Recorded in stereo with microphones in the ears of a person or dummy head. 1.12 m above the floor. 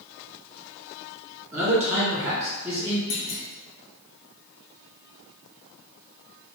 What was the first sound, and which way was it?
A man speaking, 10° right (ahead or behind).